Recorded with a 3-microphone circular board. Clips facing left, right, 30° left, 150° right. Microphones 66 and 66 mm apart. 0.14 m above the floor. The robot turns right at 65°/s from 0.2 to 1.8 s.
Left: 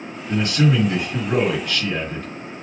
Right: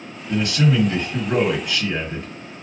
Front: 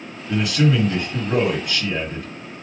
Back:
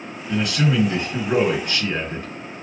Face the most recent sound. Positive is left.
turn(degrees=-150)